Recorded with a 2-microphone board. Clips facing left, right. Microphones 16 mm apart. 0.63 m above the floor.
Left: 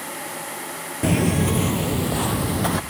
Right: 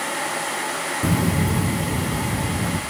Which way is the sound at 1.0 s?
50° left (ahead or behind).